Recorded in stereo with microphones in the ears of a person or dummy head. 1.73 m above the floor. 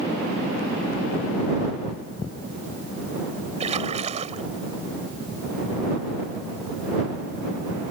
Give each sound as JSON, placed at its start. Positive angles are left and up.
{"t": 3.6, "sound": "a splash", "side_deg": -40}